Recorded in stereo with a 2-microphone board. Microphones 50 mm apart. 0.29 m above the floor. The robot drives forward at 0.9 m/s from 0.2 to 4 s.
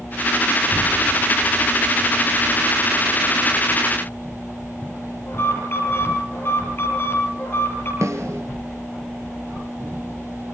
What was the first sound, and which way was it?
An alarm, 50° left (ahead or behind).